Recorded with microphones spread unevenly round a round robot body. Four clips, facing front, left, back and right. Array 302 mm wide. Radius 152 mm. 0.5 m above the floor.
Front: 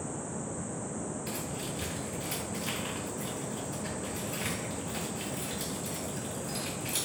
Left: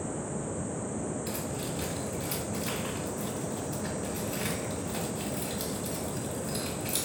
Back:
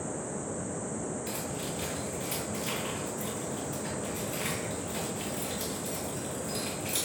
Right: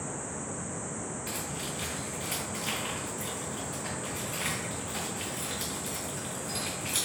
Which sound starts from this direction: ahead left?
Keys jangling, at 1.3 s.